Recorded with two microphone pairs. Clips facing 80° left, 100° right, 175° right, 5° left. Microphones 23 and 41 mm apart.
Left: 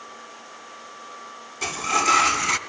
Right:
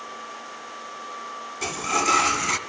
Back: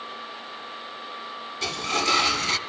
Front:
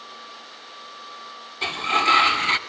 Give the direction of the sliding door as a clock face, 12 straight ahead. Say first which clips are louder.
Left 2 dB, front 5 dB; 12 o'clock.